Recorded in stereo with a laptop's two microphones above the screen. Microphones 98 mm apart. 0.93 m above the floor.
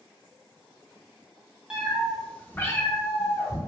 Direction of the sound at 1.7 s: 10° right (ahead or behind).